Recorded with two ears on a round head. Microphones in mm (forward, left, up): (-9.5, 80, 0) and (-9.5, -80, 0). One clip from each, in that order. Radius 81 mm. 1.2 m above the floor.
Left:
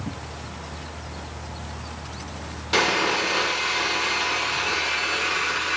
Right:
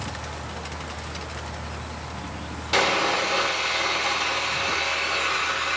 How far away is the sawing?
About 1.9 m.